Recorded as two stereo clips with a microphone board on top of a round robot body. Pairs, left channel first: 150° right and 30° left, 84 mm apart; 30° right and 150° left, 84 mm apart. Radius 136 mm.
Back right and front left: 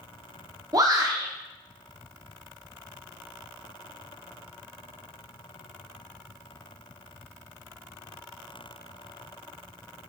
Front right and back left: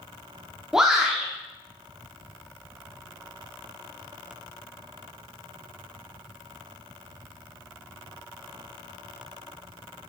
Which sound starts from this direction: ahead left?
A shout, at 0.7 s.